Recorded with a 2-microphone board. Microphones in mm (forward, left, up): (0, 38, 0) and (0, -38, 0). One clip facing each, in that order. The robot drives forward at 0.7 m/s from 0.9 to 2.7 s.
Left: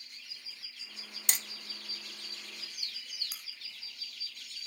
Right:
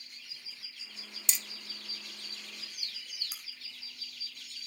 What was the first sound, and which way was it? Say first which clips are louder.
Hammering: left 3 dB; 60° left (ahead or behind).